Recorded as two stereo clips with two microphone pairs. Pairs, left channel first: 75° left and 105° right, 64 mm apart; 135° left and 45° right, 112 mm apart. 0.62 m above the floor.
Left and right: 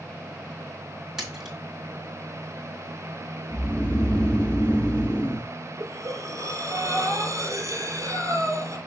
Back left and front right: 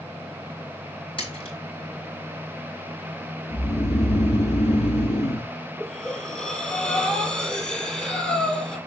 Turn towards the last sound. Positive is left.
turn(degrees=-145)